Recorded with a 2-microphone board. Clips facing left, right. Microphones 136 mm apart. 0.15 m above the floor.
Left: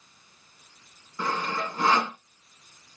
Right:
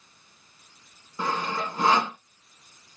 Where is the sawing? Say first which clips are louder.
Right 1 dB; 15° right (ahead or behind), 0.9 m.